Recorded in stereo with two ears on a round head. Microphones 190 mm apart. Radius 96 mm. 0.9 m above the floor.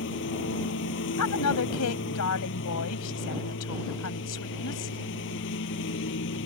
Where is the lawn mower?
55° left (ahead or behind).